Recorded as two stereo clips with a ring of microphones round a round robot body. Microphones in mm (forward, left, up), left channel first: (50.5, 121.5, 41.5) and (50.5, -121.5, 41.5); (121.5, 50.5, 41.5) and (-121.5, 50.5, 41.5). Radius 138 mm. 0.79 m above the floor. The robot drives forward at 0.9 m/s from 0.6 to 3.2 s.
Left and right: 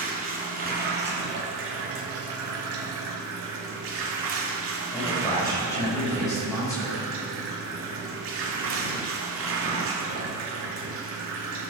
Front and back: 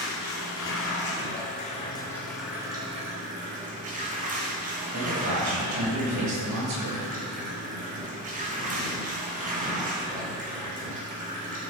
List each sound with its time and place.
0.0 s running water: 40° right, 2 m; by 11.7 s 120° right, 1.6 m
4.9 s a man speaking: 170° left, 4 m